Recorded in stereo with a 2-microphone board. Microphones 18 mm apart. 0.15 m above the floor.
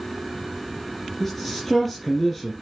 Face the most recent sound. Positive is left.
turn(degrees=15)  # may be behind; listen again after turning